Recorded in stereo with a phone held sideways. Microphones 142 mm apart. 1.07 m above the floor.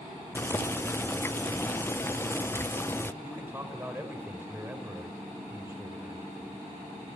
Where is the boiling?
15° left (ahead or behind), 0.6 m.